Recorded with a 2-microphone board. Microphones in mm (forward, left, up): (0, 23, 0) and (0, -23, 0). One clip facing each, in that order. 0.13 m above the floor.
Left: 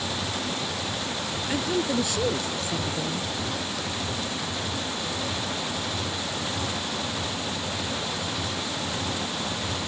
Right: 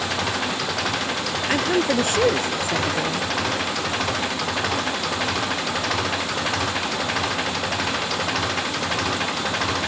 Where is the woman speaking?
50° right (ahead or behind).